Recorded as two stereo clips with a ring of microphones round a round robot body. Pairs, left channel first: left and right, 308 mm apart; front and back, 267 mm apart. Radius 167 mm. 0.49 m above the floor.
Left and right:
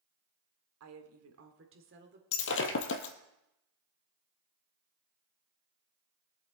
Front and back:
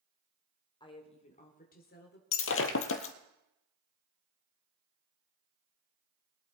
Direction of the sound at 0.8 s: 70° right.